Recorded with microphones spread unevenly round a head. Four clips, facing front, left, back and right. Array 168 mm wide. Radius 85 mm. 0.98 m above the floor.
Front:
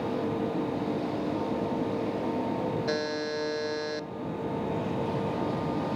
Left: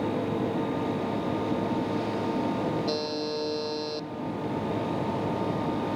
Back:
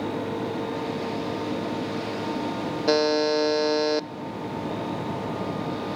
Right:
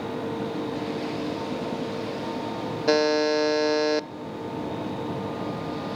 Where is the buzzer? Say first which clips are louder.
Right 9 dB, back 9 dB; 135° right, 0.6 m.